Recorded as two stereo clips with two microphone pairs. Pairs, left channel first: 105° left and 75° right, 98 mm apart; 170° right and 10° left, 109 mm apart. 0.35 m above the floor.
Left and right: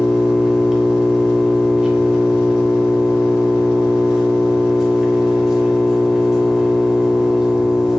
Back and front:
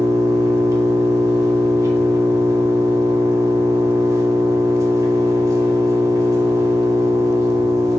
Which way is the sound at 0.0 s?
Straight ahead.